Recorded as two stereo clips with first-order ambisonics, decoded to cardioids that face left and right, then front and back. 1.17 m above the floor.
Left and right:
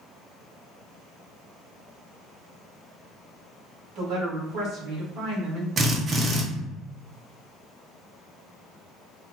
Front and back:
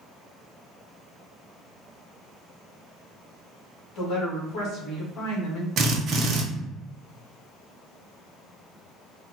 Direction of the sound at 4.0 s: 45° right.